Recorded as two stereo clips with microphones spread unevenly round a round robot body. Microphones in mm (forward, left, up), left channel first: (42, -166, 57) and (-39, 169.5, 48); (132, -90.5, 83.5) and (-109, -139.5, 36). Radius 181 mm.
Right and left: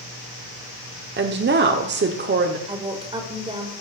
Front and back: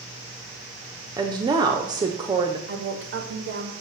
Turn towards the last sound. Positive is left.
turn(degrees=175)